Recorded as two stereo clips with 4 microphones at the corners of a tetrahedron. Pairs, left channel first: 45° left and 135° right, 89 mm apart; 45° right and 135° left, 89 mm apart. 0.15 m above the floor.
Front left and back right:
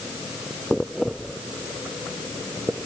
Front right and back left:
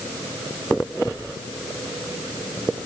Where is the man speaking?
No man speaking in this recording.